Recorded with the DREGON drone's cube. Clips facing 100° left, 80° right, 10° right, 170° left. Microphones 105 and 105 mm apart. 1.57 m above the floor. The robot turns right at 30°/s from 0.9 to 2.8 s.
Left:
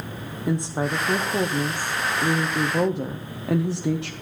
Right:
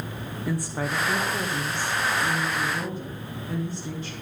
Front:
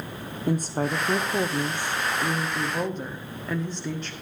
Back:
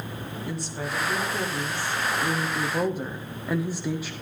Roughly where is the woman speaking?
Ahead left.